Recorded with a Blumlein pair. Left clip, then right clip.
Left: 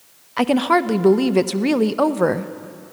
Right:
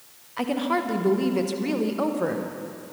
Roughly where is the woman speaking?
Ahead left.